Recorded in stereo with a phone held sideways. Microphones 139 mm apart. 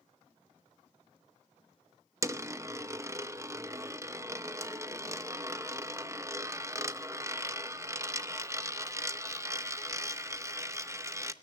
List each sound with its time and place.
2.2 s a dropped coin: 20° right (ahead or behind), 0.7 m